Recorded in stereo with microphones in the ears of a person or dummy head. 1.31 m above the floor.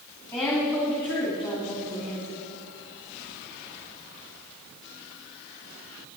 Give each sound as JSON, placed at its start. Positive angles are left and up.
{"t": 0.3, "sound": "a woman speaking", "side_deg": 10, "distance_m": 3.0}